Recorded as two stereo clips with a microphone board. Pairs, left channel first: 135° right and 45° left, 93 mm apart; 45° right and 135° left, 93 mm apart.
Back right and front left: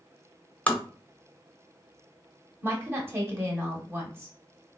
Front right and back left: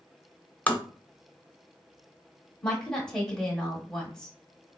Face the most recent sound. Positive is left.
turn(degrees=30)